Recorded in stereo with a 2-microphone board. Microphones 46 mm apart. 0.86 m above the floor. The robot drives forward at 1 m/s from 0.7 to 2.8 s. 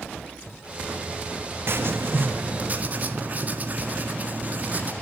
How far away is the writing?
About 1.3 m.